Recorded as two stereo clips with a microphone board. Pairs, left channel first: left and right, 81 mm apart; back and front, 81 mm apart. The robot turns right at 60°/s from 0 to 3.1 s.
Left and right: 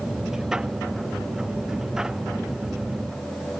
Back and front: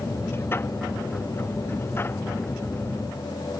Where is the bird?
I don't hear a bird.